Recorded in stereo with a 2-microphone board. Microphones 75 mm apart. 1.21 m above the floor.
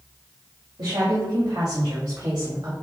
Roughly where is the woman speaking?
Right.